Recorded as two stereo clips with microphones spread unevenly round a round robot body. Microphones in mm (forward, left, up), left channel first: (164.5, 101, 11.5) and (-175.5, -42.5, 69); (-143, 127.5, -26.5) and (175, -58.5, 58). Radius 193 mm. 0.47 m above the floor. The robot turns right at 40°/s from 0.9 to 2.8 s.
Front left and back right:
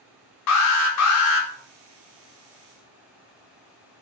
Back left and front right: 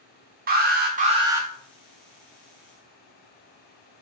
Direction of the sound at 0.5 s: 40° left.